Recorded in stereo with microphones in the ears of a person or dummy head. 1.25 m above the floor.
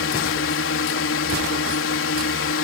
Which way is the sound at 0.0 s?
60° left (ahead or behind).